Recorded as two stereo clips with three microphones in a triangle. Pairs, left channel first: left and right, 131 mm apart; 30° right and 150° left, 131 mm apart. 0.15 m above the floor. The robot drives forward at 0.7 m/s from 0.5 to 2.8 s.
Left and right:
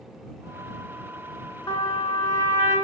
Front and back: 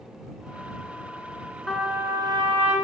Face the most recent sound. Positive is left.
turn(degrees=150)